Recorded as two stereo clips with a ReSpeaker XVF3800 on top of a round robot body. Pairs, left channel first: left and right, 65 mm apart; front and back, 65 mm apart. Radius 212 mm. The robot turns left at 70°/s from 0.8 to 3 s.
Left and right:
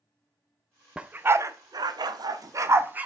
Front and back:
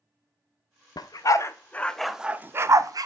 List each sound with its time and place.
1.0 s a dog barking: 15° right, 0.6 m; by 3.1 s 155° right, 0.6 m